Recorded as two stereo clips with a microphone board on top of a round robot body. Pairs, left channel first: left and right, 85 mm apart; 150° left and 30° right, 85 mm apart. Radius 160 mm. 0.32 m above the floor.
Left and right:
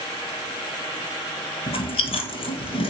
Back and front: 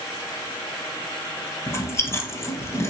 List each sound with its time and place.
1.7 s chewing: 90° left, 2.0 m